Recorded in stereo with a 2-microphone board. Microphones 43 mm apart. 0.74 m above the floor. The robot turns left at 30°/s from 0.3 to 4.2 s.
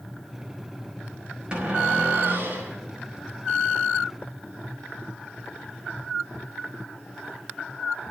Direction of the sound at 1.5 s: 20° right.